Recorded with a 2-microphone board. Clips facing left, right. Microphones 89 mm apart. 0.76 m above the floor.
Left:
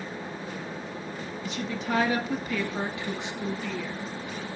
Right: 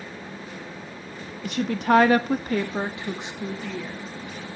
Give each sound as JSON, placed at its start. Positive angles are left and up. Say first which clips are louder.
{"t": 1.4, "sound": "a woman speaking", "louder": "right 10 dB", "side_deg": -60, "distance_m": 1.3}